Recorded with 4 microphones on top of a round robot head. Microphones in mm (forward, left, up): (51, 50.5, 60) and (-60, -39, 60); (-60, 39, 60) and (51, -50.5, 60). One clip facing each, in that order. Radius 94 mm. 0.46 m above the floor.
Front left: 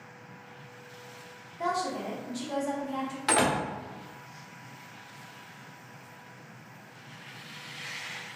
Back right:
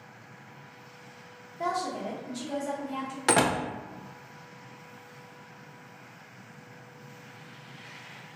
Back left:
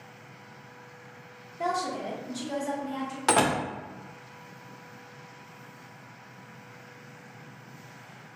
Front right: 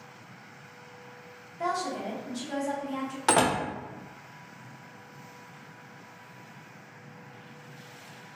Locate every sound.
1.6 s a woman speaking: 165° left, 1.1 m
3.3 s a door slam: 130° right, 0.6 m